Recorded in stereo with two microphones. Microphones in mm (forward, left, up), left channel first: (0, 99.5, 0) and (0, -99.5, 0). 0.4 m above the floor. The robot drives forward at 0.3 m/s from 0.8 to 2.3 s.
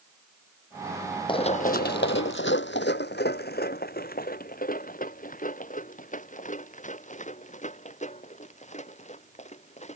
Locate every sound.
1.3 s running footsteps: 25° left (ahead or behind); by 10.0 s 35° left (ahead or behind)